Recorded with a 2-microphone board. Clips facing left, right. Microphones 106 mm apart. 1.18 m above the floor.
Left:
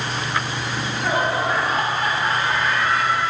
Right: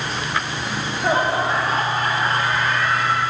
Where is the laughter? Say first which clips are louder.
Right 2 dB; 25° right (ahead or behind), 2.5 m; by 3.2 s 55° right (ahead or behind), 3.5 m.